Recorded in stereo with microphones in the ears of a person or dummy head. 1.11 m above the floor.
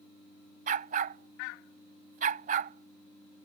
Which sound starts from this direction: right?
A dog barking, at 0.7 s.